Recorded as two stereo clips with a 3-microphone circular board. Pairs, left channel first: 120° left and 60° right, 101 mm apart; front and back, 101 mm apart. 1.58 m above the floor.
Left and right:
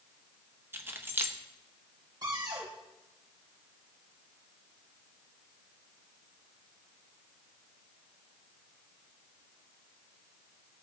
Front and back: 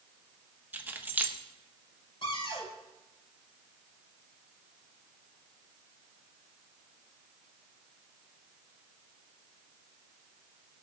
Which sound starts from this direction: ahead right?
A cupboard door, at 2.2 s.